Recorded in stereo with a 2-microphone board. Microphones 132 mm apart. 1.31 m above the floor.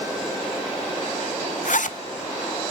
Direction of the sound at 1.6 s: 75° left (ahead or behind).